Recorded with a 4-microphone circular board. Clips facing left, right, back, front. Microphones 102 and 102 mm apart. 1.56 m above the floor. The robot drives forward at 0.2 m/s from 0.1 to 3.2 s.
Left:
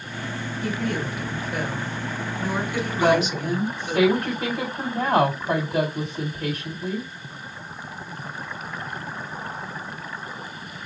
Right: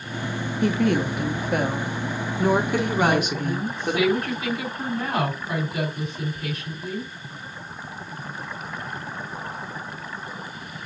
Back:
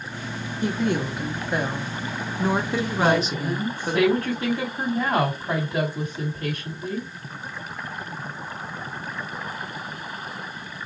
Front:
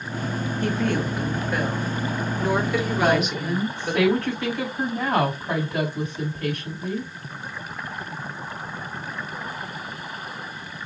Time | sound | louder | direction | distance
0.6 | a woman speaking | right 6 dB, back 1 dB | 105° right | 1.5 m
3.0 | a woman speaking | left 5 dB, back 1 dB | 105° left | 3.5 m